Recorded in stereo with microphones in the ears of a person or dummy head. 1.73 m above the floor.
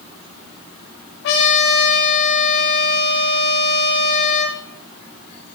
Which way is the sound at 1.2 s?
55° left (ahead or behind).